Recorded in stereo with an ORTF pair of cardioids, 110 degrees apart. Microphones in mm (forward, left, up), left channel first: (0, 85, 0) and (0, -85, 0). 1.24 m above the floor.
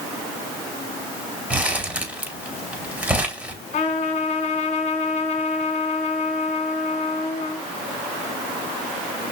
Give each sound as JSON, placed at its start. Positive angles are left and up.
{"t": 1.5, "sound": "crumpling", "azimuth_deg": -10, "distance_m": 4.0}
{"t": 3.7, "sound": "a trumpet", "azimuth_deg": 45, "distance_m": 2.5}